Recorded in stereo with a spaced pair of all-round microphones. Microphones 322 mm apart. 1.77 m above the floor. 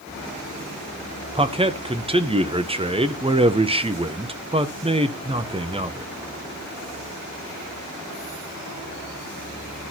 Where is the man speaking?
15° right (ahead or behind), 0.7 m.